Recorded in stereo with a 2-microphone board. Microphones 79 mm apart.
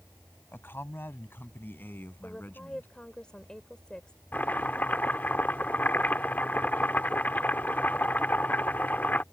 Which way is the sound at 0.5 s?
30° left (ahead or behind).